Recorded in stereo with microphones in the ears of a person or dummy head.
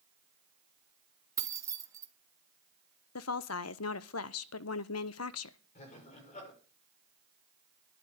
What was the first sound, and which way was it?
Keys jangling, 20° right (ahead or behind).